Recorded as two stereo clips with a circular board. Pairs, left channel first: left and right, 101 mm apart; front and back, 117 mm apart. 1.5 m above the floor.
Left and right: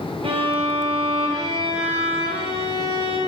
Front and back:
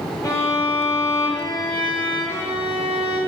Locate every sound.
0.2 s a violin: 60° right, 0.7 m